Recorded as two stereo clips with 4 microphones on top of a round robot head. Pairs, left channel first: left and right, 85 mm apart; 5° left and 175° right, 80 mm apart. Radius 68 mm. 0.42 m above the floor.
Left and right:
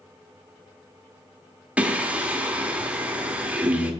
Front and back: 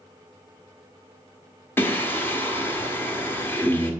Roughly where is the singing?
Ahead right.